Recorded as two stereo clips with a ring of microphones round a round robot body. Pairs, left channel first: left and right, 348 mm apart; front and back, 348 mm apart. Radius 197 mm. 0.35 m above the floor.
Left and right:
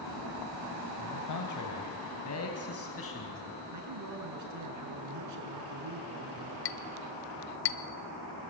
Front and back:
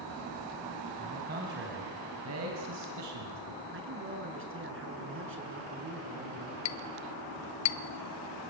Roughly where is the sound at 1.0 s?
Left.